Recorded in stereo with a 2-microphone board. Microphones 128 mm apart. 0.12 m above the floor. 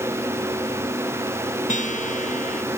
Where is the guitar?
75° left (ahead or behind).